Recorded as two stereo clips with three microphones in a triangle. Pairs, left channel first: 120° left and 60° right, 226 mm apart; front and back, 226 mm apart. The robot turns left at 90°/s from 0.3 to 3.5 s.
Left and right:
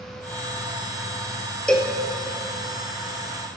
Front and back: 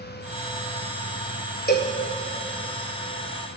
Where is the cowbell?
35° left, 1.0 m; by 2.0 s 10° left, 1.0 m.